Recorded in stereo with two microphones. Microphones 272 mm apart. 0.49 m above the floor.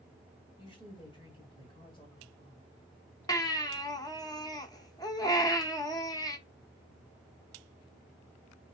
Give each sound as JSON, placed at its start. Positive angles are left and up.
{"t": 0.6, "sound": "a woman speaking", "side_deg": 20, "distance_m": 1.5}
{"t": 3.3, "sound": "a baby crying", "side_deg": 15, "distance_m": 0.5}